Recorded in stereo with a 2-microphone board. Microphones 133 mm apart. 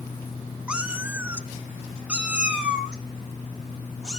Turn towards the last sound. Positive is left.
turn(degrees=-5)  # may be behind; listen again after turning